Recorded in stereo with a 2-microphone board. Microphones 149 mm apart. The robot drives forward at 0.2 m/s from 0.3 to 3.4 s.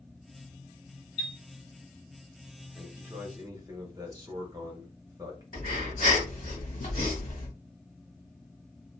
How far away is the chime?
About 0.6 m.